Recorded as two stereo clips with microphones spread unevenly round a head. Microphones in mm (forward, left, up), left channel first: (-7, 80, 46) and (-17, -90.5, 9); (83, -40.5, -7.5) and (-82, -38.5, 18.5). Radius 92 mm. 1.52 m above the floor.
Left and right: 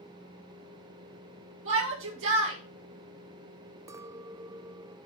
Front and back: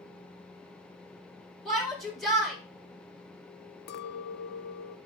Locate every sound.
1.6 s a shout: 90° right, 7 m
3.9 s a clink: 10° right, 0.7 m